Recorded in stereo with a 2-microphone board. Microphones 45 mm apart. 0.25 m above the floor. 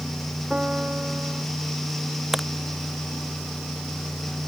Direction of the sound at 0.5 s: 15° right (ahead or behind).